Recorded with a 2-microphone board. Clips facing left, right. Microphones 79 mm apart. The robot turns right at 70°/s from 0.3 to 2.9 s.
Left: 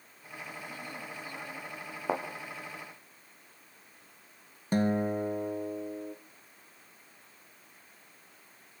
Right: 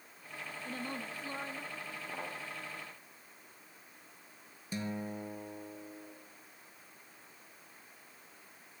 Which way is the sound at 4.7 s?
50° left (ahead or behind).